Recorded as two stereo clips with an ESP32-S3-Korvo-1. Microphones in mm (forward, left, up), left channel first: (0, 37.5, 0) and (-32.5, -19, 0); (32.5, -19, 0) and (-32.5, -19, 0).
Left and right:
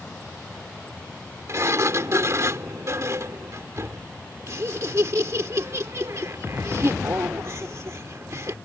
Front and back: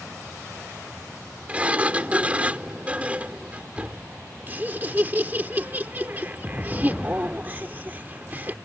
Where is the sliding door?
120° right.